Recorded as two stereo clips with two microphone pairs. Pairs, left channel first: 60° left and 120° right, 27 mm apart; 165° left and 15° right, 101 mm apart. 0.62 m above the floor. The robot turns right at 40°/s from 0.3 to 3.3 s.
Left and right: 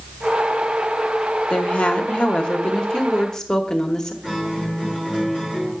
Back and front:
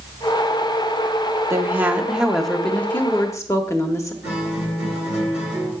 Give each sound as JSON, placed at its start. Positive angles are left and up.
{"t": 1.5, "sound": "a woman speaking", "azimuth_deg": 40, "distance_m": 0.8}
{"t": 4.2, "sound": "a guitar", "azimuth_deg": 180, "distance_m": 5.5}